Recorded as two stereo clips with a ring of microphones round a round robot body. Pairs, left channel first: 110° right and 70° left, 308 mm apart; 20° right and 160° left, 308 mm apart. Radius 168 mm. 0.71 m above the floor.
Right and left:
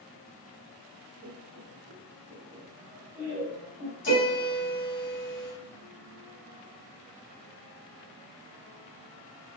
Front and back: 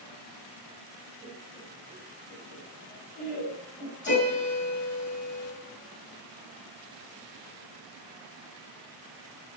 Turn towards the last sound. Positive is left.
turn(degrees=-70)